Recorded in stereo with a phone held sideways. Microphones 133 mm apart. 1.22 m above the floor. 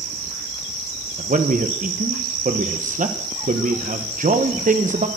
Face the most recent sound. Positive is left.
turn(degrees=-70)  # may be behind; listen again after turning